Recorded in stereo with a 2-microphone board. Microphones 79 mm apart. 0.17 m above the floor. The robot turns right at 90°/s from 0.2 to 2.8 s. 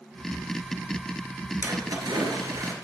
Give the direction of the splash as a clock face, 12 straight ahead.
5 o'clock.